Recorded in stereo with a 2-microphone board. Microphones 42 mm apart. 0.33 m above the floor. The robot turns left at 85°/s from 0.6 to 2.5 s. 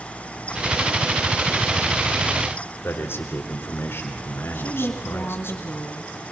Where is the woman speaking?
60° left (ahead or behind), 3 m.